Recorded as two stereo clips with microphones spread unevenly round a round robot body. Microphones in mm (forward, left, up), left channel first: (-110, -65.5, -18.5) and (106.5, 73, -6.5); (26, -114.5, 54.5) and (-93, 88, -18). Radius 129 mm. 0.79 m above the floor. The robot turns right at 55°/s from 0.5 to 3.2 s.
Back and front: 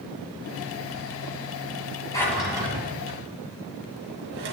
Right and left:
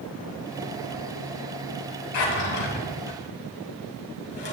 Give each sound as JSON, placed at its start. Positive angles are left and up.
{"t": 2.1, "sound": "a drawer", "azimuth_deg": -70, "distance_m": 2.5}